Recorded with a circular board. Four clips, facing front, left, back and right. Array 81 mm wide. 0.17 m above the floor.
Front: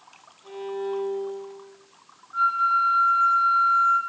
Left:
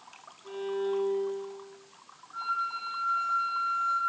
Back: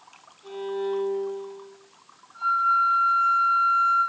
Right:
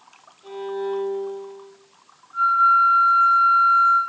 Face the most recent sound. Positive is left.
turn(degrees=-20)